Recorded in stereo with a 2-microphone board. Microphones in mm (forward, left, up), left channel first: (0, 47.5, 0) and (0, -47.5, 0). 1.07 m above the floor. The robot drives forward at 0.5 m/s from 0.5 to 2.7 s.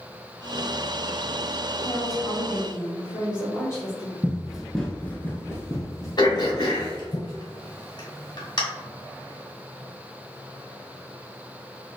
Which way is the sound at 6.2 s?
50° left (ahead or behind).